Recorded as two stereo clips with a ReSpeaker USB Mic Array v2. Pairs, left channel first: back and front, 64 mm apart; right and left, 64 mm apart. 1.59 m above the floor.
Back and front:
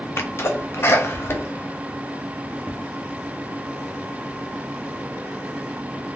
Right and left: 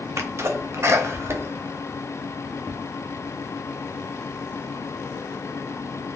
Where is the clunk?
I don't hear a clunk.